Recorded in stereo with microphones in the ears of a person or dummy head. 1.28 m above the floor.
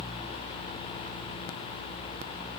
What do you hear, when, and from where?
Only background noise.